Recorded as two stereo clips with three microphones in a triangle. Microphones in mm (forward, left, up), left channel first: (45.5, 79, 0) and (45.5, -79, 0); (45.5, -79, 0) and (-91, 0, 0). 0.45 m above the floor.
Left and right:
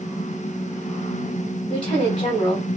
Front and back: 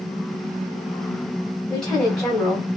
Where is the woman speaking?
55° left, 2.5 m.